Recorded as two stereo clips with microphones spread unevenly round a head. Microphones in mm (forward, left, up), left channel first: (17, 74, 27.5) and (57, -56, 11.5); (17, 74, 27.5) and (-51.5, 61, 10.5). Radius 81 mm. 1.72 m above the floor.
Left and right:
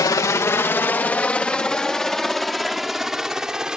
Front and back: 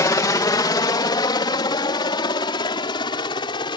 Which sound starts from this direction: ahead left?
A helicopter, at 0.0 s.